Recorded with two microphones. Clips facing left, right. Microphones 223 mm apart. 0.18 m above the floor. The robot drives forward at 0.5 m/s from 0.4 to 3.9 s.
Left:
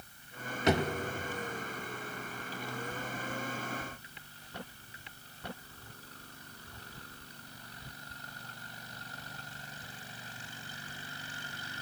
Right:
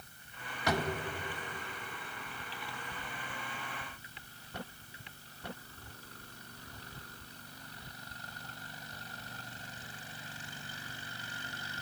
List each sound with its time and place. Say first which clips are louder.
0.7 s a drawer: left 4 dB; 20° left (ahead or behind), 0.8 m